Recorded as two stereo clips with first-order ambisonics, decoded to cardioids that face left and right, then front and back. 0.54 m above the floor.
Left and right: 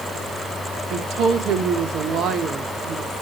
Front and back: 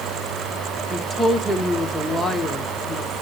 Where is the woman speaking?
85° right, 0.9 m.